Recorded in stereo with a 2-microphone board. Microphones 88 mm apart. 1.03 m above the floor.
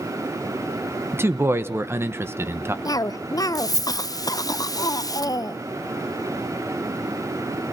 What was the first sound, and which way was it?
A man speaking, 30° right (ahead or behind).